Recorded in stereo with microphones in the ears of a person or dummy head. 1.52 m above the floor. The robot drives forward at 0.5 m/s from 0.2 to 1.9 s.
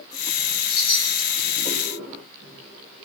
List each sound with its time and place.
0.7 s a chime: 40° left (ahead or behind), 2.5 m; by 1.3 s 45° left (ahead or behind), 2 m